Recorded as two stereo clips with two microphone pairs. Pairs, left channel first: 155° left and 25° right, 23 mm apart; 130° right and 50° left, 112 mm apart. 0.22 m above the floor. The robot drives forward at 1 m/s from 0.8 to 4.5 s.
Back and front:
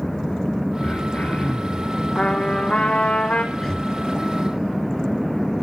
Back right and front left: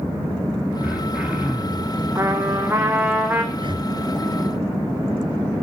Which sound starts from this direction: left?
Breathing, at 3.5 s.